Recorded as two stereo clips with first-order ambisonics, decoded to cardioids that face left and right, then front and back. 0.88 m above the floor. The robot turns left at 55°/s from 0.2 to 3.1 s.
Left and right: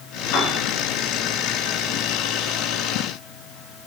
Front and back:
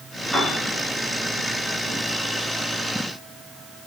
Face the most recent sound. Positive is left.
turn(degrees=-65)